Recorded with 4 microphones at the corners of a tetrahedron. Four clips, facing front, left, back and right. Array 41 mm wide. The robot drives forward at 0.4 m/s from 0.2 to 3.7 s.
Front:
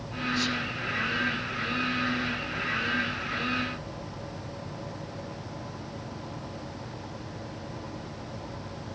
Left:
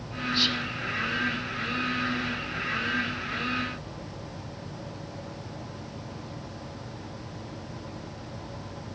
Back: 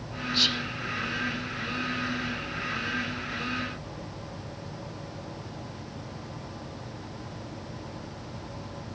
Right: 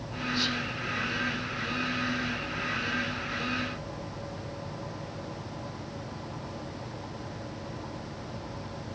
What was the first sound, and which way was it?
Whispering, 140° left.